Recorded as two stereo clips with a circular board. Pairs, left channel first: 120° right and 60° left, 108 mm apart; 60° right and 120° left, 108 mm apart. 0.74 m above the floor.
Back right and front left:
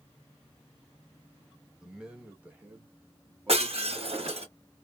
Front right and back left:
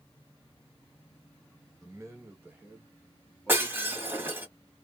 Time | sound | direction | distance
1.8 | a man speaking | 140° left | 1.0 m
3.5 | breaking glass | 50° left | 1.3 m